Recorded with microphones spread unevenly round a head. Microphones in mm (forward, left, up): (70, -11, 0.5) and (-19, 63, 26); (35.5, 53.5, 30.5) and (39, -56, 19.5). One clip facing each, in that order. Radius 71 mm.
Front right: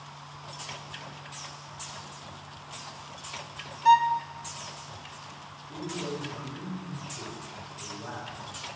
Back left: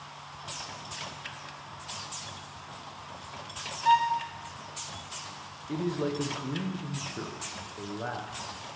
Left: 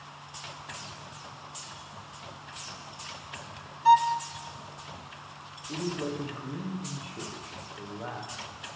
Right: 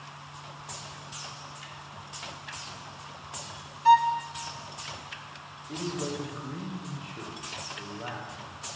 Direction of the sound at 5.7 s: 175° left.